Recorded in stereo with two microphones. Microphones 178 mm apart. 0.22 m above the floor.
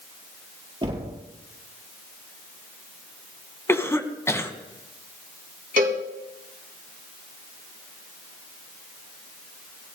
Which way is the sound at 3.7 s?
15° left (ahead or behind).